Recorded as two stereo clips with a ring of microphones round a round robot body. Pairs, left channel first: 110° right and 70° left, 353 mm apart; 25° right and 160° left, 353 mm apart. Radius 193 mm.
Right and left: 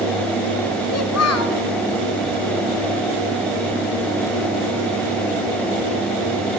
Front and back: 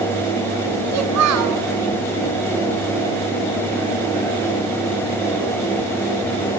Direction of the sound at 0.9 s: 160° right.